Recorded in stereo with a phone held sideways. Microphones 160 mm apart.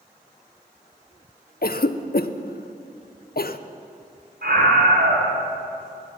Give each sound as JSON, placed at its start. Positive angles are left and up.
{"t": 1.6, "sound": "a cough", "side_deg": 70, "distance_m": 0.6}
{"t": 4.4, "sound": "a scream", "side_deg": -80, "distance_m": 4.5}